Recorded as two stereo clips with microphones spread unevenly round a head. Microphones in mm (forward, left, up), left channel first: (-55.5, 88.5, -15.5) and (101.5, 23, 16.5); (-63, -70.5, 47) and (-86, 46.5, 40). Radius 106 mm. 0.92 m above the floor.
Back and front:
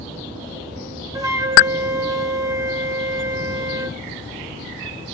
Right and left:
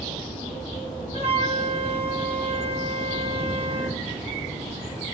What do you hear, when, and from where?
1.1 s a flute: 50° left, 2 m